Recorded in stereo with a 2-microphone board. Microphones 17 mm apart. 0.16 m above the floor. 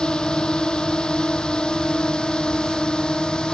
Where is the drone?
70° left (ahead or behind).